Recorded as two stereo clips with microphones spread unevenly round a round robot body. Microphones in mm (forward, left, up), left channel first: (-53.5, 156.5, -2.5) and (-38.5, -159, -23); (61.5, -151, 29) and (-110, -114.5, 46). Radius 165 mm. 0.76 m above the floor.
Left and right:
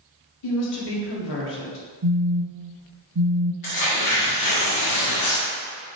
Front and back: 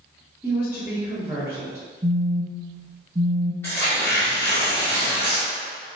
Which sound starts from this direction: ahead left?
Tearing paper, at 3.6 s.